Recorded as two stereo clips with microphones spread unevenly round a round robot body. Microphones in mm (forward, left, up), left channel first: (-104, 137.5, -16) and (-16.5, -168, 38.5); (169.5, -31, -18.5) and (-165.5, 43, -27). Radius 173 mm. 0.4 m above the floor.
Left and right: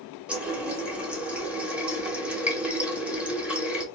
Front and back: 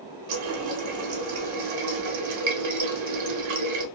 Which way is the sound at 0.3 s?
165° right.